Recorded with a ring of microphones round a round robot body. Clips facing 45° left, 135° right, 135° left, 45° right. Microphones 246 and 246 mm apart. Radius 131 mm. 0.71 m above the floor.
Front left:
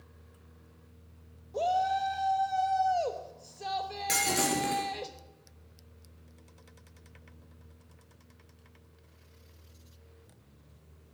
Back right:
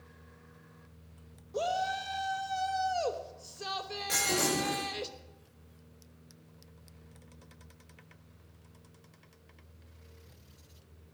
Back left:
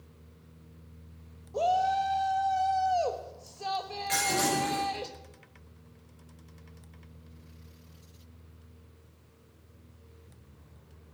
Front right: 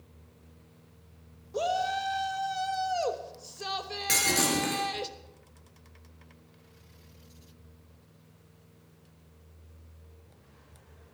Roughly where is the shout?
Right.